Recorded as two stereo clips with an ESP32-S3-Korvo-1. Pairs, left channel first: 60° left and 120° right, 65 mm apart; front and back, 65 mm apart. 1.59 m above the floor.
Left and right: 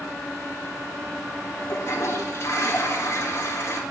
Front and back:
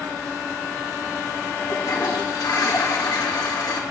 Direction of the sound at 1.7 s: 15° left.